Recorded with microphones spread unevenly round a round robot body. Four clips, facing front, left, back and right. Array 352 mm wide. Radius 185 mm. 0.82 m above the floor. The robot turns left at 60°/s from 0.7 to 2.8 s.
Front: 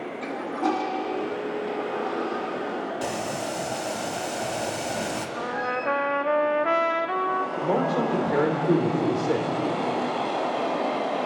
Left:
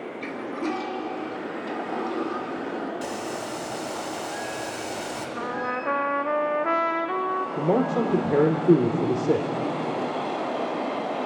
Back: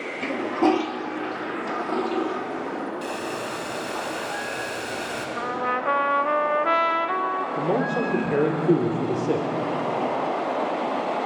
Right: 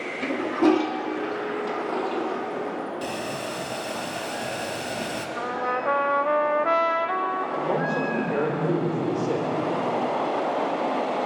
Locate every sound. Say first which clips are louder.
0.2 s a toilet flushing: right 10 dB, back 6 dB; 120° right, 1.4 m; by 2.9 s 115° left, 1.4 m
3.0 s boiling: right 1 dB, front 1 dB; 35° right, 2.5 m
5.4 s a trumpet: right 3 dB, back 4 dB; 105° left, 0.6 m
7.6 s a man speaking: left 5 dB, back 1 dB; 110° left, 3 m